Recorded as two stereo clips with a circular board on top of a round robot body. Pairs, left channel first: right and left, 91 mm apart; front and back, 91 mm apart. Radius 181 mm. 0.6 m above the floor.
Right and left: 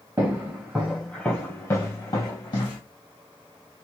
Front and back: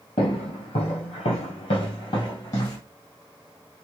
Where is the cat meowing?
I don't hear a cat meowing.